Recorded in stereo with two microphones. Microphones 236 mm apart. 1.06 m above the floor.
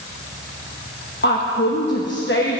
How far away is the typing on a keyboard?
I don't hear typing on a keyboard.